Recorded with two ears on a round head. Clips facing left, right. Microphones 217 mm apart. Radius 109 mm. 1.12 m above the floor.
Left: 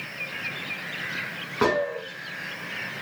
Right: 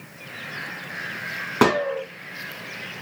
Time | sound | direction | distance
1.6 | a gunshot | 65° right (ahead or behind) | 0.6 m